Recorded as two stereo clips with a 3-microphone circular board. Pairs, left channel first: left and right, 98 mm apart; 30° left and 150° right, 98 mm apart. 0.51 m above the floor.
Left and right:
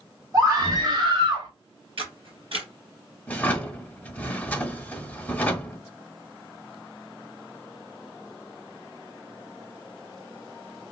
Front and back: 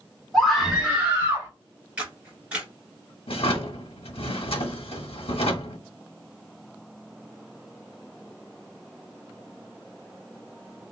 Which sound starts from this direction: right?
A camera shutter, at 2.0 s.